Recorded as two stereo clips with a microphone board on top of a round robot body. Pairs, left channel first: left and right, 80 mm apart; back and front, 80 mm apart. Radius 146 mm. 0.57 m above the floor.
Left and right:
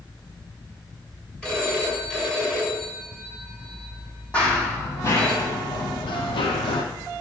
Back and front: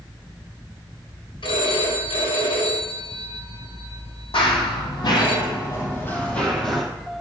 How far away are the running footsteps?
About 2 m.